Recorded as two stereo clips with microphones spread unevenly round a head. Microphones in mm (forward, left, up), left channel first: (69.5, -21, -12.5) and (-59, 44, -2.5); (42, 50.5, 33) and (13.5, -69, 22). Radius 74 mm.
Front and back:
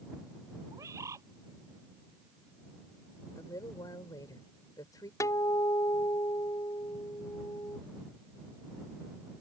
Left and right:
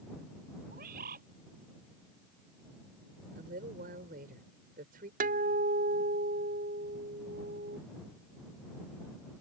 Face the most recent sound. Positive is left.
turn(degrees=-95)